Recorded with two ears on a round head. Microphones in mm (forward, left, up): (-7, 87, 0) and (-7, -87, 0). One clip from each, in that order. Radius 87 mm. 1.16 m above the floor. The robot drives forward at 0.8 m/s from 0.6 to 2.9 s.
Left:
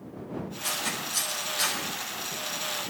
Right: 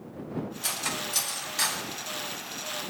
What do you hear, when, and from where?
0.6 s cutlery clinking: 35° right (ahead or behind), 5 m; by 1.8 s 30° right (ahead or behind), 5.5 m